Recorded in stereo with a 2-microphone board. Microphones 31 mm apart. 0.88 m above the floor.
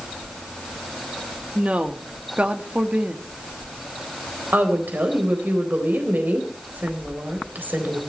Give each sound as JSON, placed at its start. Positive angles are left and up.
{"t": 1.6, "sound": "a woman speaking", "side_deg": -45, "distance_m": 1.7}
{"t": 4.5, "sound": "a woman speaking", "side_deg": -70, "distance_m": 4.0}